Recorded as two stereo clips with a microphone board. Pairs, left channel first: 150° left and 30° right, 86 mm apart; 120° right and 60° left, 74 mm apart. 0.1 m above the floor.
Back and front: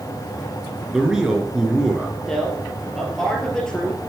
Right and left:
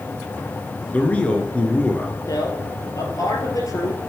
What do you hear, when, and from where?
0.9 s a man speaking: 100° right, 1.2 m
2.3 s a man speaking: 130° right, 2.0 m